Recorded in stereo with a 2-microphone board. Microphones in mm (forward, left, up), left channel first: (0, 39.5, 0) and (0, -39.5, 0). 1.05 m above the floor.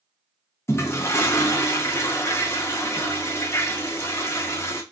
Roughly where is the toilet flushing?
Left.